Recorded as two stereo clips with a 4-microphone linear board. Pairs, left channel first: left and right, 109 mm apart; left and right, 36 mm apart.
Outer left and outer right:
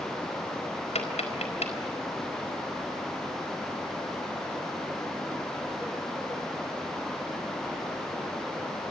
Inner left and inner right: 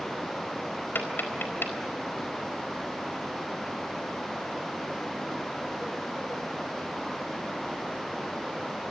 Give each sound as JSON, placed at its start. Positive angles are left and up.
{"t": 0.9, "sound": "tapping", "side_deg": 80, "distance_m": 4.0}